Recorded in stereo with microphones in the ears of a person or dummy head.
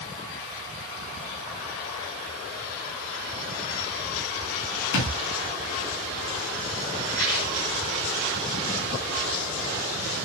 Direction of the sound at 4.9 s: 70° left (ahead or behind).